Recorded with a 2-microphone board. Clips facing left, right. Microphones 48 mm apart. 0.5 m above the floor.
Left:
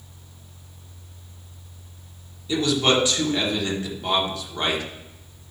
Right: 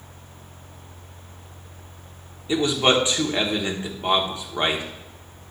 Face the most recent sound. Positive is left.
turn(degrees=-30)  # may be behind; listen again after turning